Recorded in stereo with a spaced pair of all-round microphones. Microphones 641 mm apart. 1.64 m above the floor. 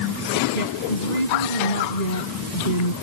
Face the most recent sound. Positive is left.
turn(degrees=85)